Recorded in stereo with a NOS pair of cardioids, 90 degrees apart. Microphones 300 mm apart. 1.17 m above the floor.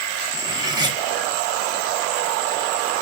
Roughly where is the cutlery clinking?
Ahead.